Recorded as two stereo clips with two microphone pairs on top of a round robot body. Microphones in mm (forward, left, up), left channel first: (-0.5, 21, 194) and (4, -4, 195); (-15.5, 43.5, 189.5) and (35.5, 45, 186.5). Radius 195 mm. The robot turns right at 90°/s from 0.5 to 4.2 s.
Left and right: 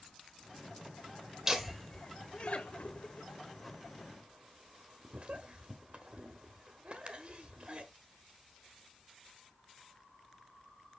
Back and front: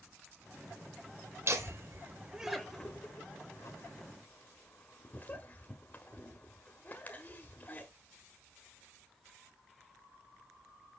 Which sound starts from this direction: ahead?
Laughter, at 1.5 s.